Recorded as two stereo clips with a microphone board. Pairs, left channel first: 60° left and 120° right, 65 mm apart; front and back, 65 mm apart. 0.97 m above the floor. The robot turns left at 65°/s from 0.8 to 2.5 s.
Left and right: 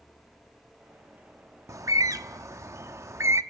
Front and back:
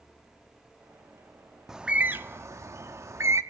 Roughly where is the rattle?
No rattle in this recording.